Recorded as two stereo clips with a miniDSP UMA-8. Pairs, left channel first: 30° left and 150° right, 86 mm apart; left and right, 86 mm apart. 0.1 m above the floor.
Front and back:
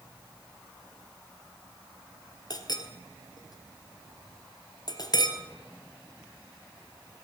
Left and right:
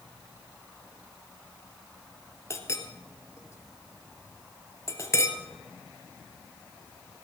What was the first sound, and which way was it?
A clink, 45° left.